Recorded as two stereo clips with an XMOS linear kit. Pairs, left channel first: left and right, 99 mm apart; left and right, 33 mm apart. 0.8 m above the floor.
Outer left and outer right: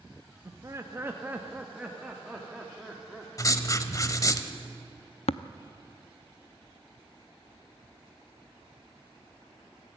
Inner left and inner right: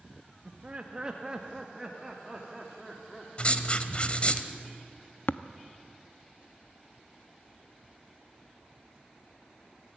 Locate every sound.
0.5 s laughter: 35° right (ahead or behind), 1.2 m; by 3.6 s centre (ahead or behind), 2.5 m
3.4 s writing: 35° left (ahead or behind), 1.0 m
5.3 s tapping: 75° left (ahead or behind), 0.5 m